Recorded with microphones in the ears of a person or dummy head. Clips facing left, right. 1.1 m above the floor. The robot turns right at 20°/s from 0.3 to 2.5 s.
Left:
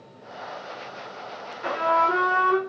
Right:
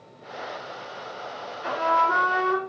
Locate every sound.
1.6 s a trumpet: 70° left (ahead or behind), 1.8 m; by 2.6 s 65° left (ahead or behind), 1.8 m